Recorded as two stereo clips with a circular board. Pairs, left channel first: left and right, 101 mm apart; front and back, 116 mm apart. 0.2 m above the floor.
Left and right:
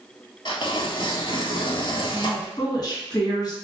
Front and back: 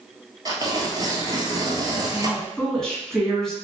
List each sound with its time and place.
0.5 s tearing paper: 125° left, 1.0 m
2.1 s a woman speaking: 85° left, 2.0 m